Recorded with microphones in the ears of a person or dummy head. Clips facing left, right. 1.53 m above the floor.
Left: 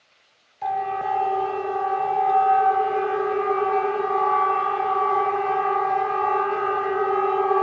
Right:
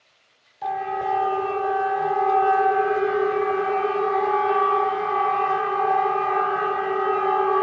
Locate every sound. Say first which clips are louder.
0.6 s a siren: even; 5° right (ahead or behind), 3 m; by 7.6 s 60° right (ahead or behind), 6 m